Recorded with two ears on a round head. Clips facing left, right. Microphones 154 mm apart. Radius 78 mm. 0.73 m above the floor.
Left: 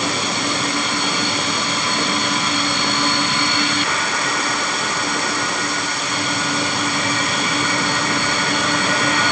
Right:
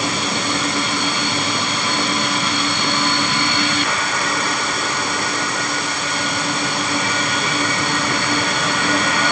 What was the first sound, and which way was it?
Only background noise.